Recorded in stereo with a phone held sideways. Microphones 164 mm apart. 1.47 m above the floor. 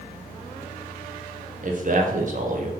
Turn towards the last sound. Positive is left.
turn(degrees=-55)  # may be behind; listen again after turning